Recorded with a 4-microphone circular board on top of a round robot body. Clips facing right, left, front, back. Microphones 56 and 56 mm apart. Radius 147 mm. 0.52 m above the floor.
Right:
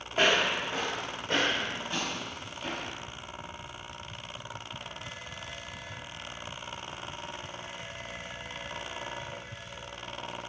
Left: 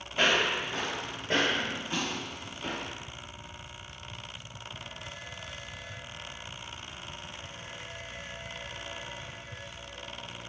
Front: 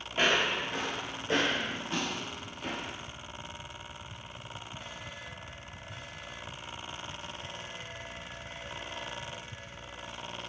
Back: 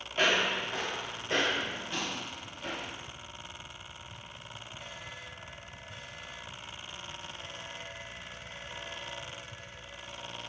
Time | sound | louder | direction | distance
0.1 | footsteps | right 1 dB, even | 85° right | 0.7 m